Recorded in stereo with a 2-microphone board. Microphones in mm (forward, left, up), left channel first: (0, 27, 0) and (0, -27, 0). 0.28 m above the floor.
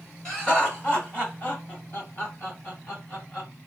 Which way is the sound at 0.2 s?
20° left (ahead or behind).